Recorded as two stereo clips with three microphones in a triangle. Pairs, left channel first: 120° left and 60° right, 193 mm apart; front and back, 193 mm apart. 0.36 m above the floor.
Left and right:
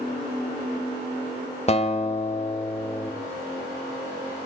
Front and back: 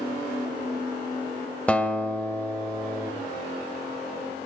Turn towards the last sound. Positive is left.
turn(degrees=80)